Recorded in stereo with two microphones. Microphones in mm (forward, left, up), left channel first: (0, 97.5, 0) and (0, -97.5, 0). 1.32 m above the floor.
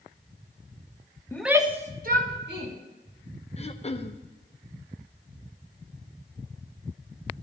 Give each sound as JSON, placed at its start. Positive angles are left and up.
{"t": 1.3, "sound": "a shout", "side_deg": 15, "distance_m": 0.8}
{"t": 3.6, "sound": "throat clearing", "side_deg": 30, "distance_m": 0.6}